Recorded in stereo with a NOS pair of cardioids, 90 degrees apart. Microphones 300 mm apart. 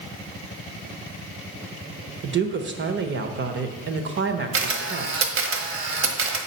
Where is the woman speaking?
40° right, 1.1 m.